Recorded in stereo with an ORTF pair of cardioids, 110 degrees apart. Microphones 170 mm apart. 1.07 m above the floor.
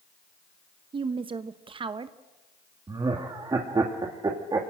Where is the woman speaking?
30° right, 0.9 m.